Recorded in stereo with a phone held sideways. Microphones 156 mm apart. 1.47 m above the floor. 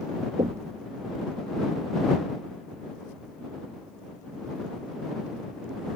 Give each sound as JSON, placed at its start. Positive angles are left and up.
{"t": 0.4, "sound": "knocking", "side_deg": -40}